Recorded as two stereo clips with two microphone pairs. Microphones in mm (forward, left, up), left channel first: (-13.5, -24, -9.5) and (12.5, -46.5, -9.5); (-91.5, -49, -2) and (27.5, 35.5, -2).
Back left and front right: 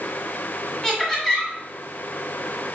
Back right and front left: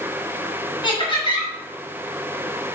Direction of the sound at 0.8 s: 155° right.